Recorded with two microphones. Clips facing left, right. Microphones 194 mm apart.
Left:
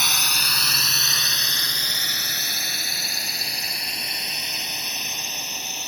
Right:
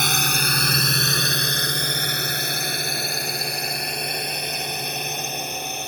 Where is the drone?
55° right (ahead or behind).